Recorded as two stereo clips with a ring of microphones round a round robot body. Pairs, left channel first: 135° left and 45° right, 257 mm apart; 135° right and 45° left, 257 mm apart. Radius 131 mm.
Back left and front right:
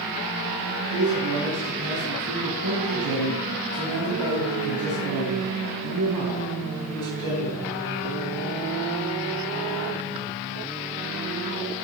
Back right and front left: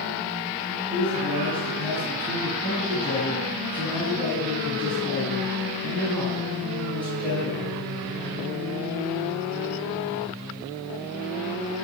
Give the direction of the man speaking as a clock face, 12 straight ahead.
2 o'clock.